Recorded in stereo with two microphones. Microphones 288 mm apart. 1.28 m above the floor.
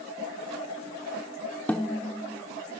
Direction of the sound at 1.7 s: 5° left (ahead or behind).